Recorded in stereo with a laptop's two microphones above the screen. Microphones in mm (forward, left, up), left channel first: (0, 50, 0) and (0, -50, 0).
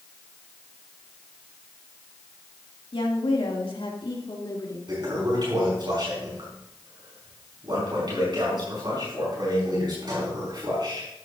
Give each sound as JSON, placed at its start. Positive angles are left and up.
{"t": 2.9, "sound": "a woman speaking", "side_deg": 70, "distance_m": 2.5}
{"t": 4.9, "sound": "a toilet flushing", "side_deg": -50, "distance_m": 4.5}